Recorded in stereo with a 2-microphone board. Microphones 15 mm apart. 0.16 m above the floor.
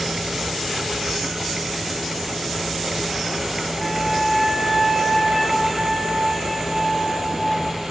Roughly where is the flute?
Left.